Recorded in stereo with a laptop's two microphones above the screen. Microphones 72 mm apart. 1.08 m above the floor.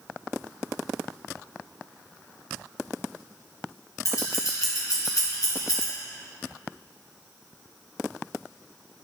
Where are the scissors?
50° left (ahead or behind), 1.5 m.